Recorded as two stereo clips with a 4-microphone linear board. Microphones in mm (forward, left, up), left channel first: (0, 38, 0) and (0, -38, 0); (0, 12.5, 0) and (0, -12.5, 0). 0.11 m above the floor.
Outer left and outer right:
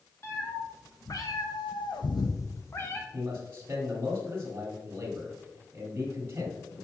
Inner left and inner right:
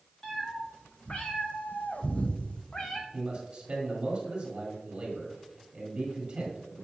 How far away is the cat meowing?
About 1.8 m.